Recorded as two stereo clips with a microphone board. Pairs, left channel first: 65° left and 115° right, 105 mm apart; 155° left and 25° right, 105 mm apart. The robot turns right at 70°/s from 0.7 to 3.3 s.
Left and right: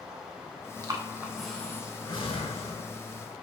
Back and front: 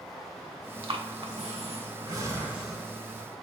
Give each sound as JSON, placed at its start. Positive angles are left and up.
{"t": 0.8, "sound": "breathing", "azimuth_deg": -65, "distance_m": 0.5}